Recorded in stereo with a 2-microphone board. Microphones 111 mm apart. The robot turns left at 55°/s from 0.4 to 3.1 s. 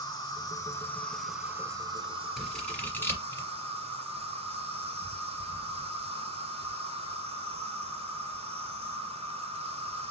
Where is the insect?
45° left, 0.8 m; by 10.1 s 105° right, 0.8 m.